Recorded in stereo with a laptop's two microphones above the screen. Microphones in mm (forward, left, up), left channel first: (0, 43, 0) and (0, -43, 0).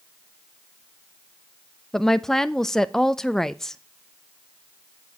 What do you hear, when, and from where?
1.9 s a woman speaking: 5° left (ahead or behind), 0.6 m